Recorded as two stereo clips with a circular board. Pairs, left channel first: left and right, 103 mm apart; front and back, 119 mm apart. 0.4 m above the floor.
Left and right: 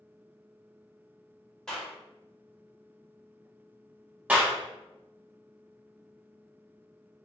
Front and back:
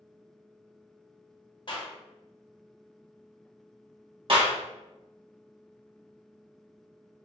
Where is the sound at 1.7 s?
10° left, 1.0 m.